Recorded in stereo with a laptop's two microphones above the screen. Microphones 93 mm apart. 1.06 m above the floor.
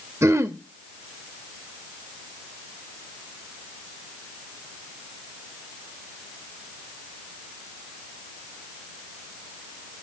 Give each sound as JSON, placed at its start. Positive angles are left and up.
{"t": 0.2, "sound": "throat clearing", "side_deg": -30, "distance_m": 1.0}